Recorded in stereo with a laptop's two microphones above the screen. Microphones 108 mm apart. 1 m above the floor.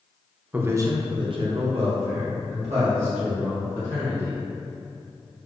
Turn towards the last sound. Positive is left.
turn(degrees=-75)  # may be behind; listen again after turning